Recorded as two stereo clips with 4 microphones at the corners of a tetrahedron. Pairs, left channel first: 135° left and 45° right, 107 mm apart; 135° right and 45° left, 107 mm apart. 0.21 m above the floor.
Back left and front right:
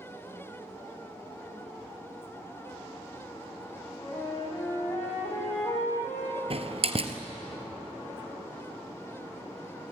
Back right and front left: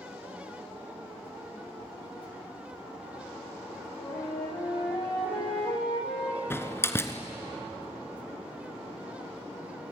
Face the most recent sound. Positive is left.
turn(degrees=-70)